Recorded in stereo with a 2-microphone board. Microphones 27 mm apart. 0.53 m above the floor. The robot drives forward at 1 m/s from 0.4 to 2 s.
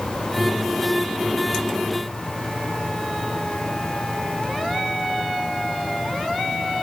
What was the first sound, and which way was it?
Only background noise.